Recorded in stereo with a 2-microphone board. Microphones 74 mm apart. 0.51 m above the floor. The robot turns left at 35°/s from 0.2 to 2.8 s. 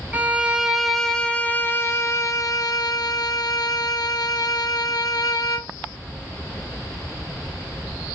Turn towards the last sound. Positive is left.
turn(degrees=110)